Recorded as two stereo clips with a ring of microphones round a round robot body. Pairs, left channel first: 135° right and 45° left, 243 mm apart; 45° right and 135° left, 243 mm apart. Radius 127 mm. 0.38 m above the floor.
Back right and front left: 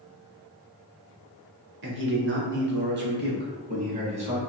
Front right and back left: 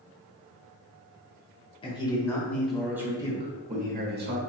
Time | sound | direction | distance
1.8 | a man speaking | 20° left | 1.4 m